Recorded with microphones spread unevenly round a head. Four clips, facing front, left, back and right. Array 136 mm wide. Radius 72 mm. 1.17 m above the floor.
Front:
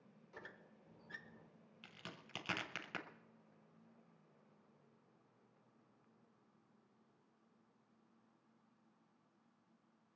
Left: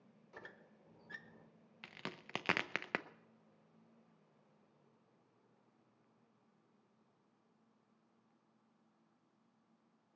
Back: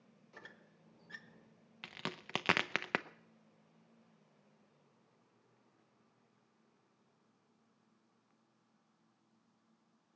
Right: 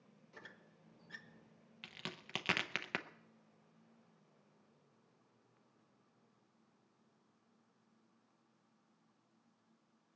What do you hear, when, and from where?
0.3 s a squeak: 105° left, 1.0 m
1.8 s a crack: 160° left, 0.6 m